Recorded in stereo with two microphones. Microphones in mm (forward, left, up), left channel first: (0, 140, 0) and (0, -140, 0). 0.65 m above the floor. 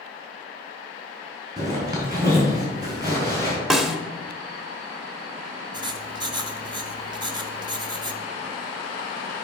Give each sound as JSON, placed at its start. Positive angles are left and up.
{"t": 1.6, "sound": "a zipper", "side_deg": -15, "distance_m": 3.5}
{"t": 3.7, "sound": "a snare drum", "side_deg": 0, "distance_m": 0.8}
{"t": 5.7, "sound": "writing", "side_deg": -15, "distance_m": 0.6}